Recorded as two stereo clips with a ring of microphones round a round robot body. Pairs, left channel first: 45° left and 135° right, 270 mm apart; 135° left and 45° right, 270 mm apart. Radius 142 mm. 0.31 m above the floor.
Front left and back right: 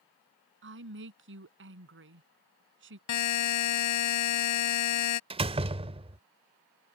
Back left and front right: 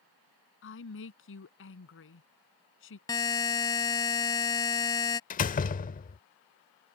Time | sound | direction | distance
0.6 | a woman speaking | straight behind | ?
3.1 | a buzzer | 60° left | ?
5.3 | a door slam | 170° left | ?